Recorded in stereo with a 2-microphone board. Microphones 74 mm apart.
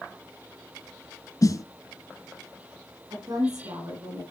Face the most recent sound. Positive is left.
turn(degrees=-65)  # may be behind; listen again after turning